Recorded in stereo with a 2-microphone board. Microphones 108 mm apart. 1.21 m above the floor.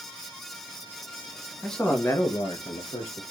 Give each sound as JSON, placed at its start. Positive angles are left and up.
{"t": 1.6, "sound": "a man speaking", "side_deg": 5, "distance_m": 1.4}